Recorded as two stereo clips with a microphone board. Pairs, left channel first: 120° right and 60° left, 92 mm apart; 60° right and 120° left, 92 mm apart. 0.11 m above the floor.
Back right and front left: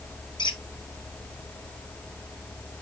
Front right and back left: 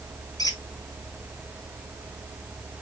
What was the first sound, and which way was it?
A squeak, 100° right.